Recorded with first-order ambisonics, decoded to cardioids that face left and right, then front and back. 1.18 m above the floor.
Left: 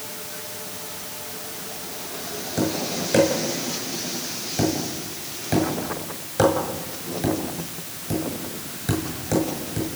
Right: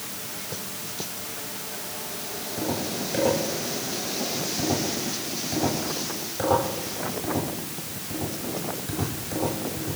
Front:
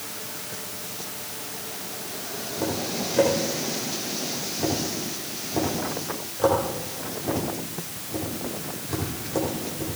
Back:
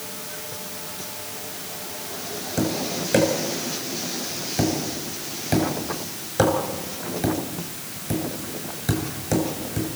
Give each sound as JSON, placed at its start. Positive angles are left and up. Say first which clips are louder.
{"t": 2.6, "sound": "tapping", "louder": "left 4 dB, back 2 dB", "azimuth_deg": 145, "distance_m": 7.5}